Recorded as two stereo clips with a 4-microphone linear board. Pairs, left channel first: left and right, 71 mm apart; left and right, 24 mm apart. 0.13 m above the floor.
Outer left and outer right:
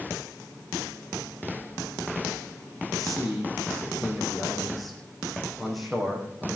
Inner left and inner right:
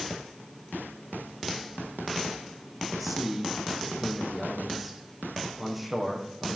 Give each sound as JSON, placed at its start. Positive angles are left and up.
{"t": 2.9, "sound": "a man speaking", "side_deg": 0, "distance_m": 5.5}